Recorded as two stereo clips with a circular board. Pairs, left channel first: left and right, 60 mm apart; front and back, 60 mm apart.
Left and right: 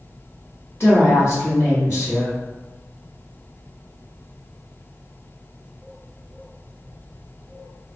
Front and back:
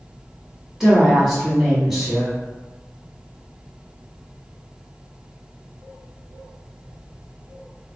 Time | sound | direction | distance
0.8 | a woman speaking | 95° left | 1.5 m